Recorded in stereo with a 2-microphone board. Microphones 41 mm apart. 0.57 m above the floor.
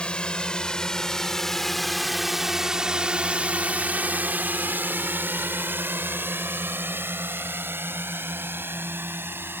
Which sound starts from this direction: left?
A drone, at 0.0 s.